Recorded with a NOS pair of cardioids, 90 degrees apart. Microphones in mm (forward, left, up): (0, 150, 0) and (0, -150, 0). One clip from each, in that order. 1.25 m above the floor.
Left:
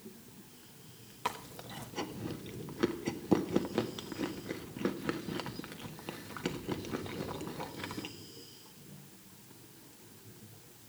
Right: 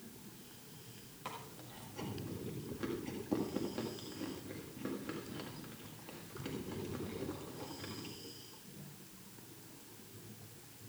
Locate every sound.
1.2 s chewing: 65° left, 1.7 m